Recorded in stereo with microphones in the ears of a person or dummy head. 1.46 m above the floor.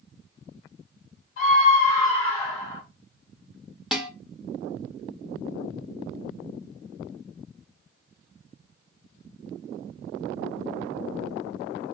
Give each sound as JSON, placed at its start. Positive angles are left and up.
{"t": 1.4, "sound": "a scream", "side_deg": 55, "distance_m": 1.9}
{"t": 3.9, "sound": "dishes clattering", "side_deg": 0, "distance_m": 0.9}